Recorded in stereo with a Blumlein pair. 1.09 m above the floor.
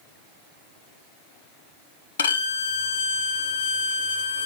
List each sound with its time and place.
2.2 s a violin: 70° left, 1.2 m